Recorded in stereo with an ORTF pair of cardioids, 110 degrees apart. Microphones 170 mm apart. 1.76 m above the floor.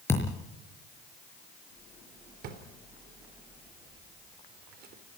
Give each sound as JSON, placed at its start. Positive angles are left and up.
{"t": 0.1, "sound": "a thud", "azimuth_deg": 15, "distance_m": 5.5}
{"t": 2.4, "sound": "a drawer", "azimuth_deg": -70, "distance_m": 3.5}